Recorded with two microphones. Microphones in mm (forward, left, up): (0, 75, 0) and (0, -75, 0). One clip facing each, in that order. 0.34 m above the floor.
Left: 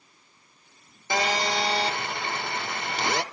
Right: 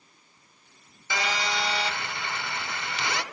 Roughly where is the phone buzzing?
Left.